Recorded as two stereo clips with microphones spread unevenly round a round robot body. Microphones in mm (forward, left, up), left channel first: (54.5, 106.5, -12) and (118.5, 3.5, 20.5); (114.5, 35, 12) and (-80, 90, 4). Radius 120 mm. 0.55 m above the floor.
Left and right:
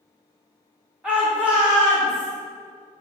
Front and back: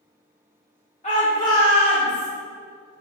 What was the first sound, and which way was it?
A shout, 35° left.